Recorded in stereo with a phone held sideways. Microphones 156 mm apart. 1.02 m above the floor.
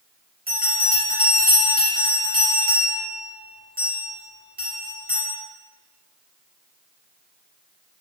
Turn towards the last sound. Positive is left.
turn(degrees=-70)  # may be behind; listen again after turning